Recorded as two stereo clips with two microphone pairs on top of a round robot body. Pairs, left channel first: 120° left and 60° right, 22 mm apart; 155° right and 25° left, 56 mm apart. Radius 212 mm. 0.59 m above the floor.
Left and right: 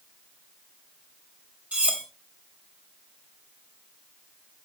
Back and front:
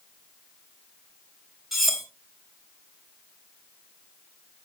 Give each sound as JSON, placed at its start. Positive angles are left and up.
{"t": 1.7, "sound": "cutlery clinking", "azimuth_deg": -60, "distance_m": 3.0}